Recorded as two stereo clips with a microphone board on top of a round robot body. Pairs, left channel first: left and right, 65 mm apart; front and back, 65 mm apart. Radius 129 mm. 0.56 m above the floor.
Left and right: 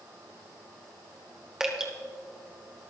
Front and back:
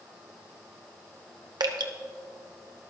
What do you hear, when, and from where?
1.6 s dripping: 170° right, 1.0 m